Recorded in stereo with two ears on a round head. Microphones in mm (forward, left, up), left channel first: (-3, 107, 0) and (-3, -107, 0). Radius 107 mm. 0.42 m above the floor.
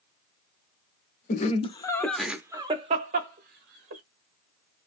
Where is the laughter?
35° left (ahead or behind), 0.9 m; by 4.0 s 50° right (ahead or behind), 1.3 m.